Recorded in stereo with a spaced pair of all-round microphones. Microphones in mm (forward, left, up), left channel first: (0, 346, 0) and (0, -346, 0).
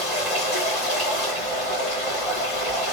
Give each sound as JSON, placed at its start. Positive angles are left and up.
{"t": 0.0, "sound": "running water", "side_deg": 65, "distance_m": 1.8}